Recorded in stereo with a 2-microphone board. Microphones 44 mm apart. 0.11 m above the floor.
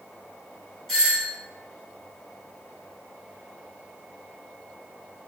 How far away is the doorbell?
About 1.5 m.